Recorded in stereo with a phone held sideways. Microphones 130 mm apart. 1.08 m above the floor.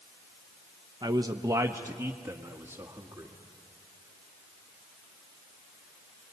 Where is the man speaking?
35° right (ahead or behind), 0.7 m; by 3.3 s 15° right (ahead or behind), 2 m.